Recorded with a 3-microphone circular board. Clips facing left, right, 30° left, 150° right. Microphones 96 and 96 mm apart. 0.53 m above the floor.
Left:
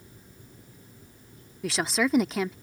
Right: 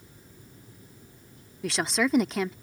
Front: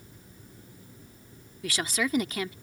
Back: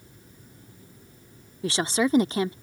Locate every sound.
1.6 s a woman speaking: straight behind